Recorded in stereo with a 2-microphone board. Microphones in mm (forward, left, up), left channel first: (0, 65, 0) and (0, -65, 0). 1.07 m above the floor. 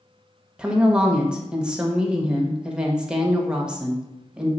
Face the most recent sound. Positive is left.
turn(degrees=-5)  # may be behind; listen again after turning